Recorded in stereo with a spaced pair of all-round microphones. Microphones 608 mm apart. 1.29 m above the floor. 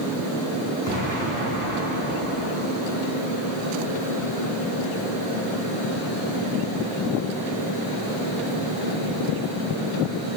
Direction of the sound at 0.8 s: 35° left (ahead or behind).